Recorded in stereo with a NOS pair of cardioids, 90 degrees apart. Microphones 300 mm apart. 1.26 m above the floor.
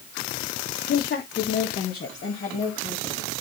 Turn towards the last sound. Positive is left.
turn(degrees=35)